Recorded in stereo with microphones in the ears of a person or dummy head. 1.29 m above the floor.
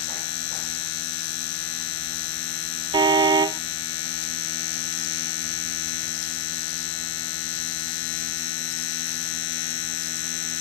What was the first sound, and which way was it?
A machine running, 65° left (ahead or behind).